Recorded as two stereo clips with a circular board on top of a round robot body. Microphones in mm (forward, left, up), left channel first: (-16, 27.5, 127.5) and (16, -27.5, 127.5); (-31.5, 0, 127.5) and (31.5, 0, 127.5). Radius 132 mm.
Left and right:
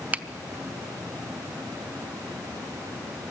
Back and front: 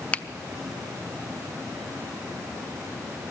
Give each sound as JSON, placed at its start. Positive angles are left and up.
{"t": 0.1, "sound": "a finger snap", "azimuth_deg": -120, "distance_m": 0.8}